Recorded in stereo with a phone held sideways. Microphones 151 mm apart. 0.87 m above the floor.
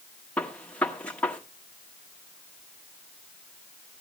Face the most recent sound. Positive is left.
turn(degrees=10)  # may be behind; listen again after turning